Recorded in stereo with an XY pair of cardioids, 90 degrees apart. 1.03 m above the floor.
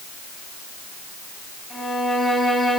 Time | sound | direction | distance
1.7 | a violin | 25° left | 4 m